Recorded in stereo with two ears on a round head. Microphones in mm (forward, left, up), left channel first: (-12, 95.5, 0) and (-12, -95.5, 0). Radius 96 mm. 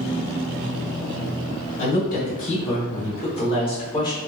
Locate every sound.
1.8 s a woman speaking: 45° left (ahead or behind), 1.9 m; by 4.2 s 20° left (ahead or behind), 1.4 m